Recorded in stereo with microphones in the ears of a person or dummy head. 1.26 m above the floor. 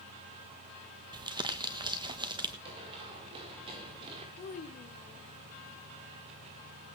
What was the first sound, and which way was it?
Crumpling, 25° right (ahead or behind).